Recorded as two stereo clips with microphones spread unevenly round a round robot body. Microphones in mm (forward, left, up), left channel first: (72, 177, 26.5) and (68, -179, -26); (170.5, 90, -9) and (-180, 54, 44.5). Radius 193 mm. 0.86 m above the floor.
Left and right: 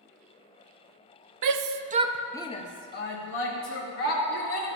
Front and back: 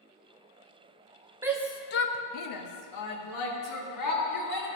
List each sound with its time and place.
1.4 s a shout: 85° right, 0.6 m; by 4.7 s 35° left, 2.5 m